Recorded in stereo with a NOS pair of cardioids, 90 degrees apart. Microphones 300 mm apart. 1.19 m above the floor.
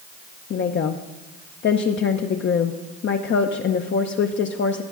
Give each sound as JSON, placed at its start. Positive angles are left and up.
{"t": 0.5, "sound": "a woman speaking", "azimuth_deg": 40, "distance_m": 0.6}